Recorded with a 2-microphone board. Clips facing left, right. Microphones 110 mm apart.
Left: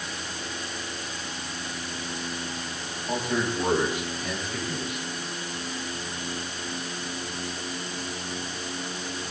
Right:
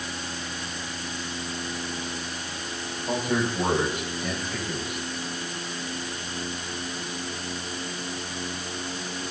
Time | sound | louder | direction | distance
3.1 | a man speaking | right 1 dB | 55° right (ahead or behind) | 7.5 m